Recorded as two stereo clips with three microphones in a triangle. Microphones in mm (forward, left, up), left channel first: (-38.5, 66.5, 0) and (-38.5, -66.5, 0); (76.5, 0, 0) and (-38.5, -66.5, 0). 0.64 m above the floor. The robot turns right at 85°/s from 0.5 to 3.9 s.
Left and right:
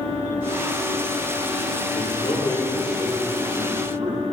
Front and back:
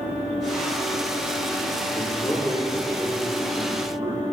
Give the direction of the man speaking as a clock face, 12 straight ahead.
10 o'clock.